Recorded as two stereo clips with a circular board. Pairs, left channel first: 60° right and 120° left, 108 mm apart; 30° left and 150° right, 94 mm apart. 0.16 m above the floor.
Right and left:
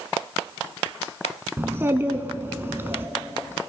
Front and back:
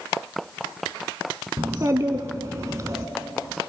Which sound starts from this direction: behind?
A child speaking, at 1.6 s.